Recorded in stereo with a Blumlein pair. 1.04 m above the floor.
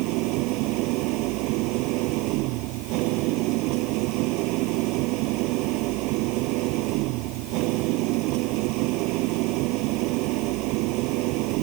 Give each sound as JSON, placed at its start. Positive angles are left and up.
{"t": 0.0, "sound": "an engine running", "azimuth_deg": -40}